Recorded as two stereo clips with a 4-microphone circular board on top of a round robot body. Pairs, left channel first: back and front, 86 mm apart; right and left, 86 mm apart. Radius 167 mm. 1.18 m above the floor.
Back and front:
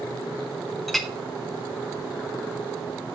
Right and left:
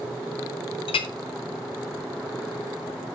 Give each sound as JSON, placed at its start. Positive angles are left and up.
{"t": 0.9, "sound": "a clink", "azimuth_deg": -90, "distance_m": 0.6}